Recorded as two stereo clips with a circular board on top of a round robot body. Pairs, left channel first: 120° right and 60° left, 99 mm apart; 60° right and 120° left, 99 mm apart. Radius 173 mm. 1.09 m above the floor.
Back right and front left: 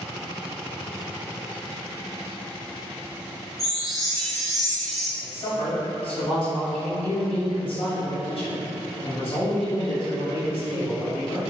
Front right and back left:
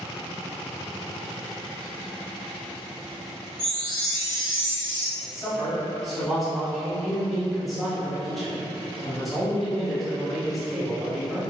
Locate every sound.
3.6 s a chime: 150° left, 1.1 m
5.2 s a man speaking: 150° right, 1.2 m